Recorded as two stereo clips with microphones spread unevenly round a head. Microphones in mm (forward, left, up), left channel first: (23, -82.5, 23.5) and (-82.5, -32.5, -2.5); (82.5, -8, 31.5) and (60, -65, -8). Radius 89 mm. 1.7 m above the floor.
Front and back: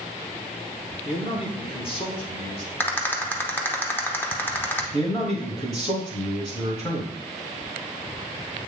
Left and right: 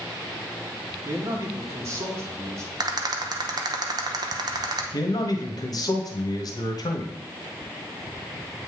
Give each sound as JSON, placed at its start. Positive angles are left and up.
{"t": 1.1, "sound": "a man speaking", "azimuth_deg": -55, "distance_m": 1.4}
{"t": 2.8, "sound": "a rattle", "azimuth_deg": -75, "distance_m": 0.9}
{"t": 4.9, "sound": "a man speaking", "azimuth_deg": 45, "distance_m": 1.3}